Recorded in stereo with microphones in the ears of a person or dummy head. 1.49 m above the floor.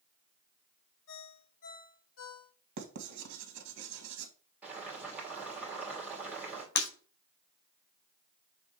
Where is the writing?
60° right (ahead or behind), 1.8 m.